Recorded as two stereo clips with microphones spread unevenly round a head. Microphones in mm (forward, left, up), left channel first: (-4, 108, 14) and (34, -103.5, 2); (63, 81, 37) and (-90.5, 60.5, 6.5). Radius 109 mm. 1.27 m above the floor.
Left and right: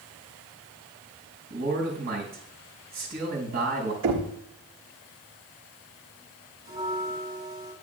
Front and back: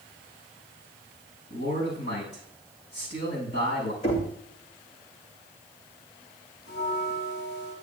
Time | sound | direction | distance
1.5 | a man speaking | 30° right | 5.5 m
4.0 | knocking | 55° right | 1.9 m
6.7 | a bell | 10° right | 5 m